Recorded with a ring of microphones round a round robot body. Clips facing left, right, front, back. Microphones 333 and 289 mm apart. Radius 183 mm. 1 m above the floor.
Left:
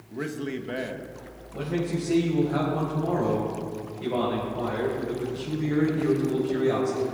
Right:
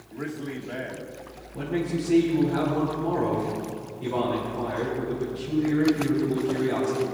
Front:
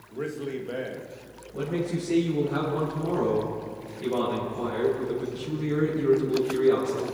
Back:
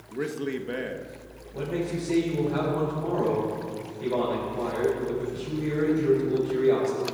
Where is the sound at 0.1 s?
120° left, 1.7 m.